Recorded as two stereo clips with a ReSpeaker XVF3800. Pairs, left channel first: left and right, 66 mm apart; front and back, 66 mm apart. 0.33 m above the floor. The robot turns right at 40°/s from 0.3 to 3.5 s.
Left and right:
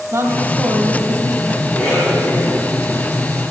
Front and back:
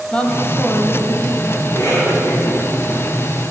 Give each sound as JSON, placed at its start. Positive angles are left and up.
{"t": 0.1, "sound": "a woman speaking", "azimuth_deg": -70, "distance_m": 1.9}
{"t": 1.6, "sound": "a cough", "azimuth_deg": 15, "distance_m": 3.5}